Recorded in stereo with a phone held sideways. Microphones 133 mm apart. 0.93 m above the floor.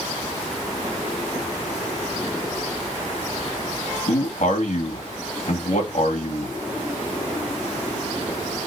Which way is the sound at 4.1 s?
65° left (ahead or behind).